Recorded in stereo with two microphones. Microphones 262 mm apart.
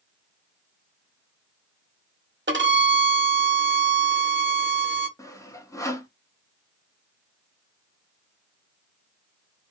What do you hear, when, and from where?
2.5 s a violin: 45° right (ahead or behind), 0.7 m
5.2 s sawing: 10° left (ahead or behind), 0.6 m